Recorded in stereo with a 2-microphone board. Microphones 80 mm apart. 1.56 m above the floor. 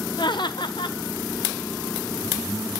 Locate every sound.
0.2 s laughter: 70° left (ahead or behind), 0.7 m